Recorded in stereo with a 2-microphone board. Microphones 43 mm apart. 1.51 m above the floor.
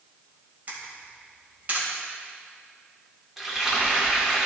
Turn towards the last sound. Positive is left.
turn(degrees=-10)  # may be behind; listen again after turning